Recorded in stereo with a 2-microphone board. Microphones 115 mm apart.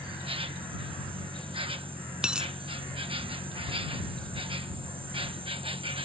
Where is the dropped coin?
5° right (ahead or behind).